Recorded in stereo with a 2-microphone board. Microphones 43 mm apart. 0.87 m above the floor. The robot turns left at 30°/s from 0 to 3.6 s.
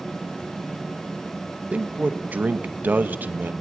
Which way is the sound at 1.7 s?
55° right.